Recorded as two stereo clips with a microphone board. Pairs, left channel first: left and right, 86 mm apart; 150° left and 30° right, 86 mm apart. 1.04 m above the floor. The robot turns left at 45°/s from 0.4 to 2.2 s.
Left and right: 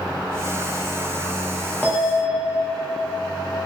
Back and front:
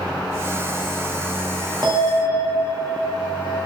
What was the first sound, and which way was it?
A bell, 20° left.